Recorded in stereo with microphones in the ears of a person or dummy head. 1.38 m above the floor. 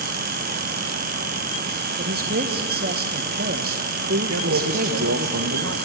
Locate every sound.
2.0 s a man speaking: 45° right (ahead or behind), 1.5 m
4.3 s a man speaking: 70° right (ahead or behind), 1.7 m